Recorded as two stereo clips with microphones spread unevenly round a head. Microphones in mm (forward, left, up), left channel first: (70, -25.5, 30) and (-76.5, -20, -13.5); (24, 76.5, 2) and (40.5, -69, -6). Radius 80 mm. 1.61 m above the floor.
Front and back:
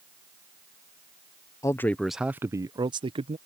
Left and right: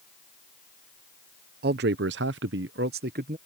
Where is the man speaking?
70° right; by 3.4 s 130° right.